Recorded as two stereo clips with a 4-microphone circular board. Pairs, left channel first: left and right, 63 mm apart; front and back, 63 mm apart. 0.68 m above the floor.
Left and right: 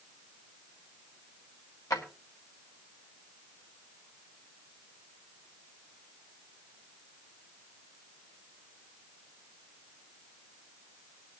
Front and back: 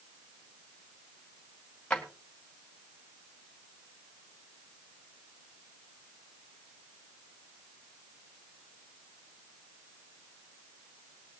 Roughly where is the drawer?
Left.